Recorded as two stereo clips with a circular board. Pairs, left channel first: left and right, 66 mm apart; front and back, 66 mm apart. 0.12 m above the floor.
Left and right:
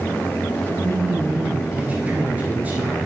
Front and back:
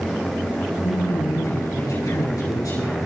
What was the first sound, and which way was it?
A man speaking, 25° right.